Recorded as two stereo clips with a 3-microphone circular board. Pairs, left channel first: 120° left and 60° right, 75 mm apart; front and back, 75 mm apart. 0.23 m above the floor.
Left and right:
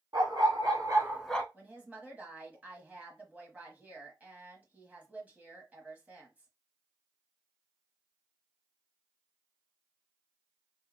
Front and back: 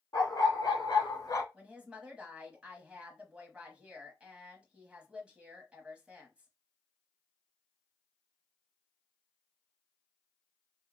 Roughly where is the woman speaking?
Behind right.